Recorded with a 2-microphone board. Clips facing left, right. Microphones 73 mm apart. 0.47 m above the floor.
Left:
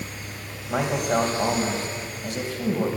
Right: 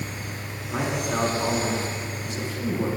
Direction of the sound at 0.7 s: 60° left (ahead or behind).